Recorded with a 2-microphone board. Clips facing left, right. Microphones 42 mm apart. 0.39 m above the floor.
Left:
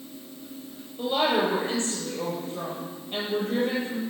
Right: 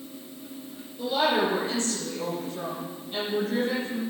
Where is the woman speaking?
35° left (ahead or behind), 9 m.